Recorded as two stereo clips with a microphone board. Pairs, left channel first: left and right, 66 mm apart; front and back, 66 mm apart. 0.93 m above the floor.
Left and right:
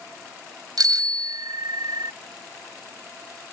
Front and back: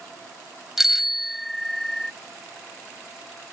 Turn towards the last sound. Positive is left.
turn(degrees=-85)